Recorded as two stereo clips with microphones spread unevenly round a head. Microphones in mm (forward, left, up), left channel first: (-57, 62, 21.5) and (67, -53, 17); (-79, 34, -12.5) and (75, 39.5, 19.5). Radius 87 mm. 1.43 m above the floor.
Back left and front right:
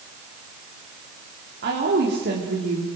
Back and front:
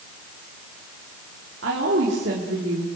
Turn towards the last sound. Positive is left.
turn(degrees=-15)